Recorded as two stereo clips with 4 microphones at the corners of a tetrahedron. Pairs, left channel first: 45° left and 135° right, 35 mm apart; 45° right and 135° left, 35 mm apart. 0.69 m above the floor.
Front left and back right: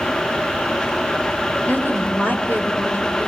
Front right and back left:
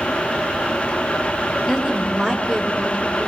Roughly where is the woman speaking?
Ahead left.